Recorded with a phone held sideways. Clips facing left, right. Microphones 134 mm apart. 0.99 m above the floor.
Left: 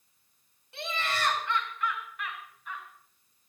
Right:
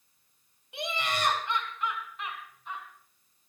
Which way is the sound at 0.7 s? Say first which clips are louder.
Right 1 dB; 15° right (ahead or behind).